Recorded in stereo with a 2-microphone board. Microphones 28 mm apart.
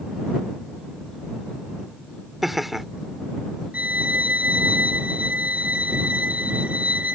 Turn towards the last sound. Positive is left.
turn(degrees=-60)  # may be behind; listen again after turning